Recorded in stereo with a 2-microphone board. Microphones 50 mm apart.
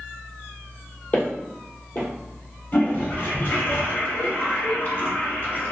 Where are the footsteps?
40° left (ahead or behind), 1.5 m.